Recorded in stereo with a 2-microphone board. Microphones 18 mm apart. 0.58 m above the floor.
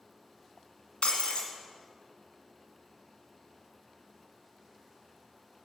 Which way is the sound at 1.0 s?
85° left.